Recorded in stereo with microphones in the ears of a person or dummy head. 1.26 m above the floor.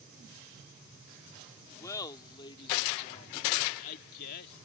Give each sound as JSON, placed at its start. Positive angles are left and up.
{"t": 1.8, "sound": "laughter", "side_deg": 20}